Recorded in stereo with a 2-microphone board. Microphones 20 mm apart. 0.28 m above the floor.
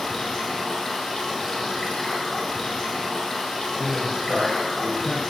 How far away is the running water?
About 1.4 m.